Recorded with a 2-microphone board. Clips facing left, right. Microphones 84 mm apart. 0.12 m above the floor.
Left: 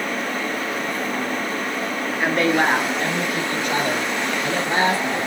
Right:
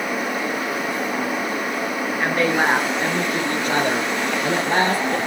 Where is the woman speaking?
5° left (ahead or behind), 1.8 m; by 5.2 s 65° right (ahead or behind), 3 m.